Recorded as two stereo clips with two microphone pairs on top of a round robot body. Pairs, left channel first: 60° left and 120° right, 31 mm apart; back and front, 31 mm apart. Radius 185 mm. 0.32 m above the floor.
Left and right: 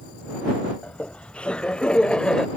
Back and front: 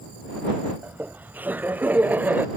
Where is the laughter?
10° left; by 2.5 s 5° right.